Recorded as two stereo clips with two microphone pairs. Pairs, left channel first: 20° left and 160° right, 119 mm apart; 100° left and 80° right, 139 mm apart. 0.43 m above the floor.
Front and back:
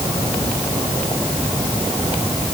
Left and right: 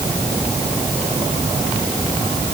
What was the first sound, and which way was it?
Only background noise.